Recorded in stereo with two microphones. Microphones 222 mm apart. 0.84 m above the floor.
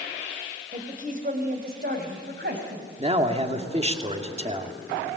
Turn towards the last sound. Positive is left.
turn(degrees=-25)  # may be behind; listen again after turning